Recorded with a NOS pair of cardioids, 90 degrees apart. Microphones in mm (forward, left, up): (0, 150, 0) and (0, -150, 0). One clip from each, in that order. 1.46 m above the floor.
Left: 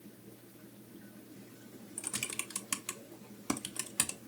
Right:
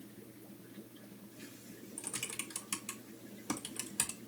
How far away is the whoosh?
No whoosh in this recording.